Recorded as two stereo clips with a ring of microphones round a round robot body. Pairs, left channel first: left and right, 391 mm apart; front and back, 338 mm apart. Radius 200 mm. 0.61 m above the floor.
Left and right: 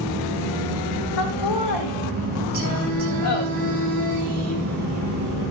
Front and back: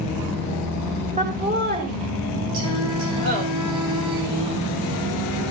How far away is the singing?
About 6 m.